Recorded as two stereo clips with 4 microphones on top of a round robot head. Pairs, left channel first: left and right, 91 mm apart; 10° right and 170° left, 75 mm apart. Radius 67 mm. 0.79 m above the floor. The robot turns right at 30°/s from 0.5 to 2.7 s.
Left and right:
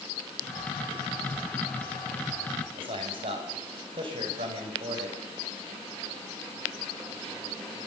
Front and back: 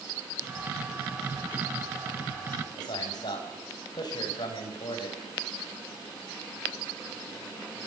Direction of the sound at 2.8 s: 55° right.